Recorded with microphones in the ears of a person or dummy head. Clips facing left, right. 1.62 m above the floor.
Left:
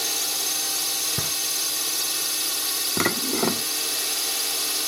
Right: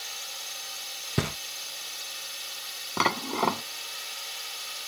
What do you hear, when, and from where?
0.0 s a drone: 70° left (ahead or behind)
1.2 s knocking: 25° right (ahead or behind)
3.0 s dishes clattering: 25° left (ahead or behind)